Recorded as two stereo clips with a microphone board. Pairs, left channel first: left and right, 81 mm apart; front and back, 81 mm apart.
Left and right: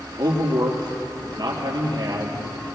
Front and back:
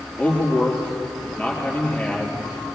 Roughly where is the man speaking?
Right.